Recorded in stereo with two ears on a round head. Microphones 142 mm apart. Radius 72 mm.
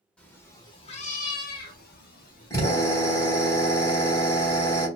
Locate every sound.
0.2 s a cat meowing: 10° left (ahead or behind), 0.7 m; by 2.5 s 60° left (ahead or behind), 0.9 m
2.5 s a drill: 20° left (ahead or behind), 1.4 m